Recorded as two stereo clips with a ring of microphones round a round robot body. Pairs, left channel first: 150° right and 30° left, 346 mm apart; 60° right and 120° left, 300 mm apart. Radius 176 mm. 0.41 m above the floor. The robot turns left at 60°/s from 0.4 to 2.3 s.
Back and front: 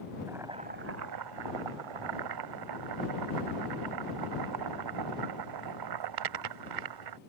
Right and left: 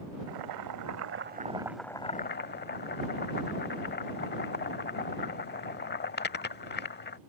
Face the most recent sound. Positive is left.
turn(degrees=0)